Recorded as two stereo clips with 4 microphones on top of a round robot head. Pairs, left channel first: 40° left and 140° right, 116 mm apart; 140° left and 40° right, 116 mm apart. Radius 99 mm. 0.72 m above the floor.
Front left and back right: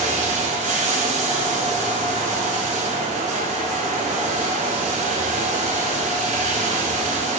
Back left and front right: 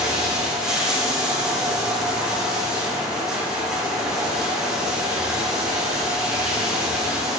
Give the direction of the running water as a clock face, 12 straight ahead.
4 o'clock.